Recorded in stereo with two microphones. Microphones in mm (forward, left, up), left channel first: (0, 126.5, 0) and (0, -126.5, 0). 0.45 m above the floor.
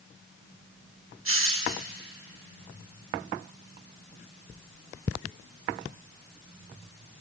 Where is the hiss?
55° right (ahead or behind), 0.5 m.